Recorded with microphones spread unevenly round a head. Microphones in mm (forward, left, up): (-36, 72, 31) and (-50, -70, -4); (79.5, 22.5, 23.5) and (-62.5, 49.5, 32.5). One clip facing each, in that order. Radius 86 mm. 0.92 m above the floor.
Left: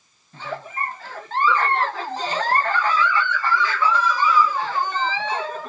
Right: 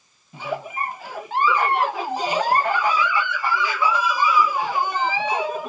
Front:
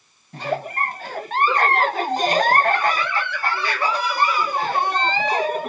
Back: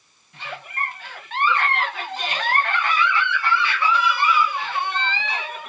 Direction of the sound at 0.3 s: 35° right.